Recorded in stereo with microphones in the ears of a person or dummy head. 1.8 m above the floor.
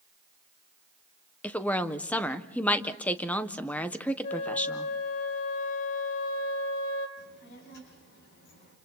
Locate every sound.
1.4 s a woman speaking: 10° left (ahead or behind), 1.2 m
4.2 s a flute: 45° left (ahead or behind), 3 m
7.2 s a child speaking: 65° left (ahead or behind), 7.5 m